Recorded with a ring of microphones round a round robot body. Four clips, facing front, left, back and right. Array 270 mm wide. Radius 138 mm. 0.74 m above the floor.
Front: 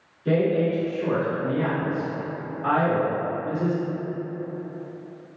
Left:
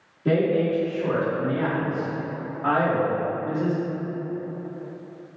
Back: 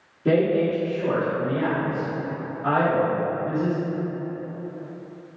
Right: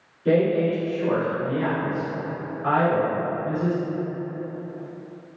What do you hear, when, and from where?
0.2 s a woman speaking: 150° left, 1.4 m; by 3.8 s 55° left, 1.7 m